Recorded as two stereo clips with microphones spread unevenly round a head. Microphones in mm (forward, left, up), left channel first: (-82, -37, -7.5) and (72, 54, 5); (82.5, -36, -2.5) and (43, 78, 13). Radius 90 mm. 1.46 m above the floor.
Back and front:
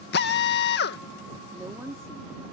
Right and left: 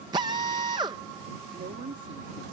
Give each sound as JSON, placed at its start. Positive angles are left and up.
{"t": 0.1, "sound": "a drill", "azimuth_deg": 180}
{"t": 1.5, "sound": "a woman speaking", "azimuth_deg": 105}